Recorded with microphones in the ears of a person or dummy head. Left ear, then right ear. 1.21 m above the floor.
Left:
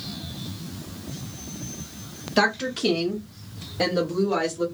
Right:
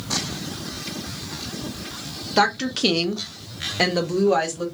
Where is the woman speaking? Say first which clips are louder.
Right 2 dB; 10° right (ahead or behind), 0.7 m; by 4.7 s 35° right (ahead or behind), 1.2 m.